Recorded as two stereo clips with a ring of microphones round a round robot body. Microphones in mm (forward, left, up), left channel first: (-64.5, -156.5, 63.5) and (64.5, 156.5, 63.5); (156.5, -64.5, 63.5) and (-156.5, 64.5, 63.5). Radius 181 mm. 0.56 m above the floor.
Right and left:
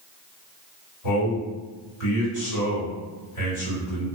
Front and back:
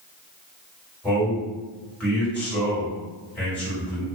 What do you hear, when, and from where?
1.0 s a man speaking: 110° right, 1.9 m